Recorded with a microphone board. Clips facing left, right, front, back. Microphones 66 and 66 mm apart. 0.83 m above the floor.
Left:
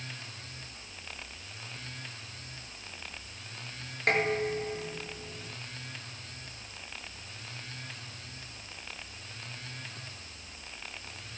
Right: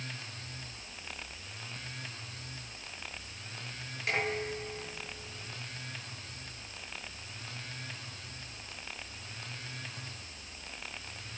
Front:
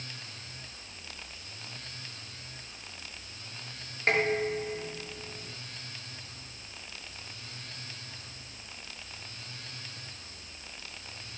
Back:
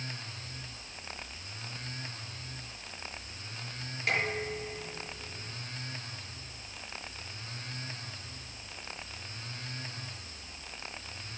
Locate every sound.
4.1 s dishes clattering: 50° left, 9 m